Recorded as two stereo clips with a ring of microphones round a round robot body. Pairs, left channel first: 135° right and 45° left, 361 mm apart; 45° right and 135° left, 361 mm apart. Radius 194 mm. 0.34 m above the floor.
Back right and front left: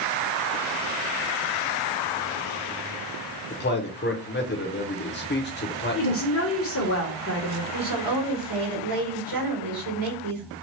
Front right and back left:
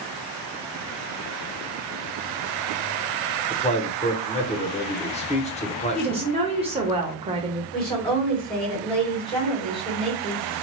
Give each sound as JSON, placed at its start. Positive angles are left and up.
{"t": 3.5, "sound": "a man speaking", "azimuth_deg": -100, "distance_m": 1.0}
{"t": 6.0, "sound": "a woman speaking", "azimuth_deg": -160, "distance_m": 1.2}
{"t": 7.7, "sound": "a woman speaking", "azimuth_deg": 30, "distance_m": 3.0}